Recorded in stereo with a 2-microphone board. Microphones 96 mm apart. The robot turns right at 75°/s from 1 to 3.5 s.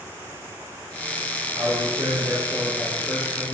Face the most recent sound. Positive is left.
turn(degrees=50)